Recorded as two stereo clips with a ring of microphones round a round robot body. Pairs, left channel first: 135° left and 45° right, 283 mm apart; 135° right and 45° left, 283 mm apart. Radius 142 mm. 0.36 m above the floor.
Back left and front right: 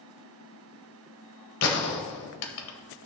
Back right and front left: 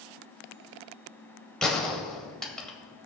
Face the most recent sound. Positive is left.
turn(degrees=140)